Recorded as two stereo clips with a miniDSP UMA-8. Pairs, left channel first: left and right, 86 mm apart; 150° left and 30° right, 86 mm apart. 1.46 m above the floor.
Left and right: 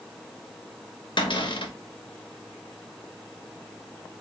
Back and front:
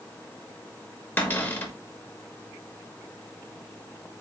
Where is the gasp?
No gasp in this recording.